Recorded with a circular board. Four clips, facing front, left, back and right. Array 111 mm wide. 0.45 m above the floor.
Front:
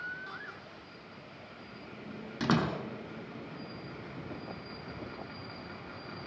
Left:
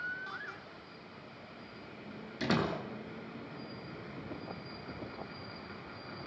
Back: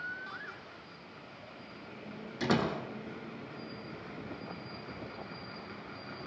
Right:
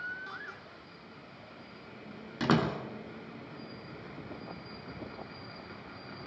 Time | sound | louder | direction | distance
2.4 | a door slam | right 4 dB, front 1 dB | 60° right | 4.5 m